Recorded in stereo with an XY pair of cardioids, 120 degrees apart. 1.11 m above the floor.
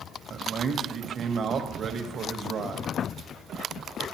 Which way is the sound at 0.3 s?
40° right.